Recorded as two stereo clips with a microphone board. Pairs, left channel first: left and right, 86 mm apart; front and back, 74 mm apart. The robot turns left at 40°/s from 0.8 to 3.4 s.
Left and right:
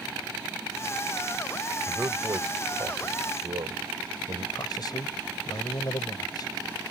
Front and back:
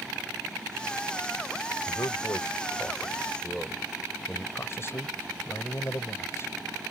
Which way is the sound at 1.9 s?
20° right.